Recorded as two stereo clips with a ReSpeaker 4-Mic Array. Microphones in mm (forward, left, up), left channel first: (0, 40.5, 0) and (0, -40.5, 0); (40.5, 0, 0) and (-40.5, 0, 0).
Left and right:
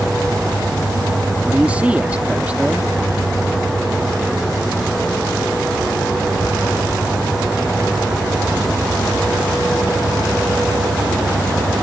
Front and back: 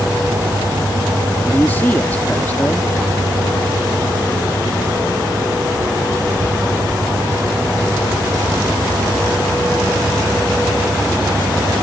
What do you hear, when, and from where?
1.4 s a man speaking: 40° right